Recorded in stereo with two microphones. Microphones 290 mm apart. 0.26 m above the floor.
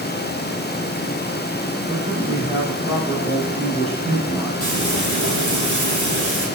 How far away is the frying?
About 5 m.